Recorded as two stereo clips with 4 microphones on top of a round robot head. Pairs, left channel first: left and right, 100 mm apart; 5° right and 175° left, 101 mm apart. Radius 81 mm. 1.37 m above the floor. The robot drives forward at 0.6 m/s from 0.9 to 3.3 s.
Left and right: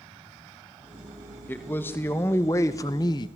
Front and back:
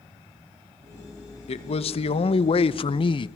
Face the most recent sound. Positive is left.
turn(degrees=35)